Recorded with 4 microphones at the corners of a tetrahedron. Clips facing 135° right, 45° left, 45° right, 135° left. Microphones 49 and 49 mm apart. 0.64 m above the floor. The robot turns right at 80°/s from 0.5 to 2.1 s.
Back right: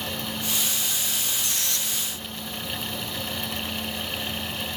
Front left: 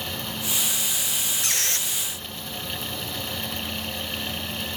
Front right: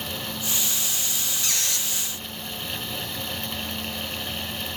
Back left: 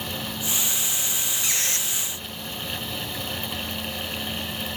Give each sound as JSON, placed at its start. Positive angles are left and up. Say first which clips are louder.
{"t": 1.4, "sound": "a squeak", "louder": "front left 2 dB, back left 1 dB", "azimuth_deg": 60, "distance_m": 1.2}